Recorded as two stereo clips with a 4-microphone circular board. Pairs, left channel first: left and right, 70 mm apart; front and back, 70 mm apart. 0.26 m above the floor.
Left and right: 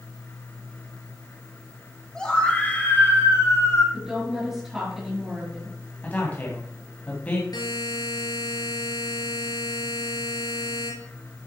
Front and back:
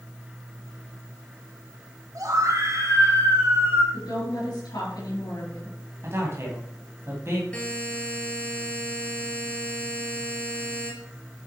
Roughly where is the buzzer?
Left.